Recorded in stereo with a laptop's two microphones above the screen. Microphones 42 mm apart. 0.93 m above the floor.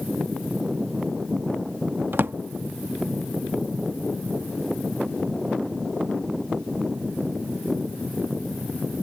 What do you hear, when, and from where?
2.1 s a drawer: 55° right (ahead or behind)